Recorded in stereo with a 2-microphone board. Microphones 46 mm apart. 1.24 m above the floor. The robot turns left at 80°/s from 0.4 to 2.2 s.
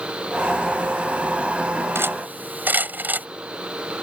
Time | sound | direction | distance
1.9 | cutlery clinking | 60° right (ahead or behind) | ?